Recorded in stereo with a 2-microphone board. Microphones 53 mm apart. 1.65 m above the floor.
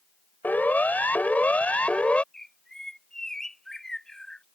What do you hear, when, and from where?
0.4 s a siren: 30° left (ahead or behind); by 2.2 s 20° left (ahead or behind)
2.3 s a bird: 10° left (ahead or behind)